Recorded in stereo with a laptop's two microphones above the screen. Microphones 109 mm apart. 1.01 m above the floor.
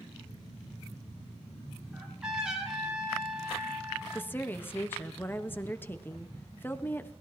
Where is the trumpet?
5° right (ahead or behind), 7 m.